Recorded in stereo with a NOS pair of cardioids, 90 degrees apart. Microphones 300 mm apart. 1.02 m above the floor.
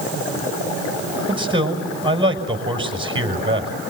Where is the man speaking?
15° right, 6 m.